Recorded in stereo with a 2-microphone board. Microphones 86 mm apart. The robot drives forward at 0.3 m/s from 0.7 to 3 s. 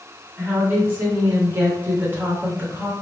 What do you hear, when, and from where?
0.4 s a woman speaking: 25° right (ahead or behind), 0.9 m